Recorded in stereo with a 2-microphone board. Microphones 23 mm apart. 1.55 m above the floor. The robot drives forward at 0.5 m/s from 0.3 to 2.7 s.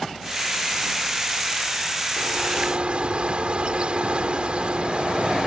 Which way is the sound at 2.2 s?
55° right (ahead or behind).